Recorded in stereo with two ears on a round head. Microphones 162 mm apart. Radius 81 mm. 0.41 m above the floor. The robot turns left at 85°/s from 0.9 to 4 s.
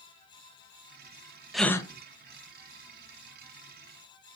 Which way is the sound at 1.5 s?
Centre (ahead or behind).